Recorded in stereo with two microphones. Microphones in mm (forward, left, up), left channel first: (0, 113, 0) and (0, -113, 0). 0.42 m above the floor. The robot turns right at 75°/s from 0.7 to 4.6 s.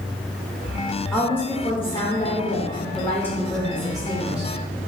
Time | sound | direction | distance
1.1 | a woman speaking | centre (ahead or behind) | 1.2 m